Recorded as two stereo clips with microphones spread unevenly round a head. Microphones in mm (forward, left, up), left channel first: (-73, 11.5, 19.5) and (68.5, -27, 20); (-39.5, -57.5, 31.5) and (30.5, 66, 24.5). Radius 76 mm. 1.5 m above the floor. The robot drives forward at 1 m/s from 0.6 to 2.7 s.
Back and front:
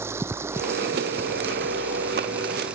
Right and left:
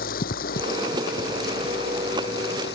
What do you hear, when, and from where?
0.0 s running water: 90° right; by 2.8 s 100° right